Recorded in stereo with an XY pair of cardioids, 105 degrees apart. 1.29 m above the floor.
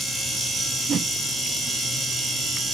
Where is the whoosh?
45° right, 0.5 m.